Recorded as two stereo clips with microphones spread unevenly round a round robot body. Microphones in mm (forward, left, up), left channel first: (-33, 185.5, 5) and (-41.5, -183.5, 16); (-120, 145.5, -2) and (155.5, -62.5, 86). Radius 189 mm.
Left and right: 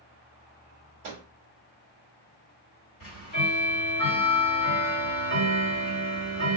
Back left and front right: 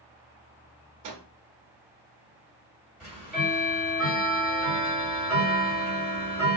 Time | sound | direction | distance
1.0 | a microwave | 55° right | 1.1 m
3.0 | ticking | 65° left | 2.0 m